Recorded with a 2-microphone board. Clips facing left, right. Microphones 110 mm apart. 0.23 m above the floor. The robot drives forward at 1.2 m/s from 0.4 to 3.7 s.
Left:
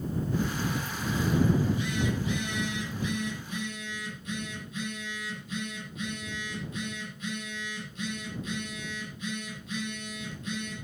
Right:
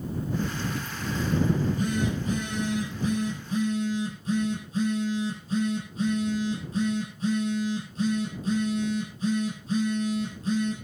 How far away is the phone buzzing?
About 9 m.